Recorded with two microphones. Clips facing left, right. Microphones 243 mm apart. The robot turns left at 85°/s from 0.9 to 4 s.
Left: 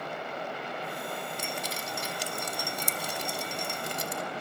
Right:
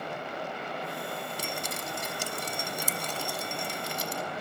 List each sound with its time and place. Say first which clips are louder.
1.4 s dripping: even; 35° right (ahead or behind), 1.5 m; by 4.2 s 55° left (ahead or behind), 1.5 m